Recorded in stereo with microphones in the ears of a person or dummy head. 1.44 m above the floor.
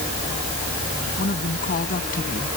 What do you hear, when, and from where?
1.2 s a woman speaking: 45° left (ahead or behind)